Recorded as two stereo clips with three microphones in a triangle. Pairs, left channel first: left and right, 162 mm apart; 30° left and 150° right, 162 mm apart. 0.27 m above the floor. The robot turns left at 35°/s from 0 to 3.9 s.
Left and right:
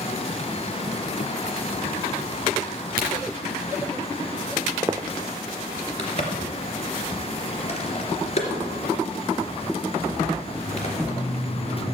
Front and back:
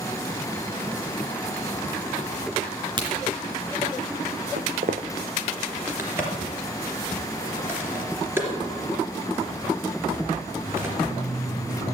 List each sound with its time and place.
3.0 s a crack: 95° right, 3 m; by 3.2 s 100° right, 3 m
4.6 s footsteps: 155° right, 0.7 m
6.0 s a crack: 135° left, 2.5 m